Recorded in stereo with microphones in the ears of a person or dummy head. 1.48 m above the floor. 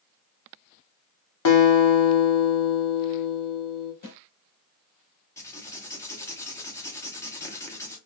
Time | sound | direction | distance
1.4 | a guitar | 85° left | 0.8 m
4.0 | a snare drum | 50° left (ahead or behind) | 1.4 m
5.4 | writing | 15° left (ahead or behind) | 0.7 m